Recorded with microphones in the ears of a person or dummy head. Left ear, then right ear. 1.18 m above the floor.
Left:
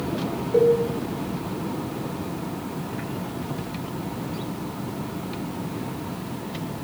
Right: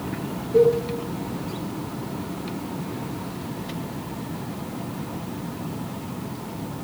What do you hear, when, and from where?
0.5 s a cowbell: 55° left (ahead or behind), 0.5 m